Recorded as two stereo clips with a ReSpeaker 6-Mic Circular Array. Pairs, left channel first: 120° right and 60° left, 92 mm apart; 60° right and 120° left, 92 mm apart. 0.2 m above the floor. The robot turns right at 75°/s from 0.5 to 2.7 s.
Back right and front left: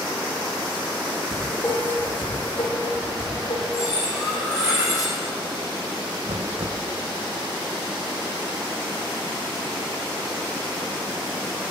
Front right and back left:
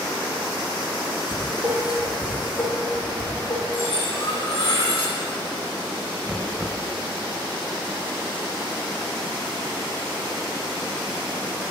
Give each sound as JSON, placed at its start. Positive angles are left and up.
{"t": 1.3, "sound": "dishes clattering", "azimuth_deg": 145, "distance_m": 7.0}
{"t": 3.7, "sound": "cutlery clinking", "azimuth_deg": -70, "distance_m": 6.0}
{"t": 6.3, "sound": "knocking", "azimuth_deg": 40, "distance_m": 1.4}